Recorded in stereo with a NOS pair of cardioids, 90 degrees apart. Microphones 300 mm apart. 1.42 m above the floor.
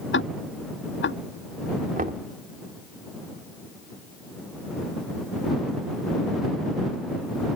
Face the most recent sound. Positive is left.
turn(degrees=-30)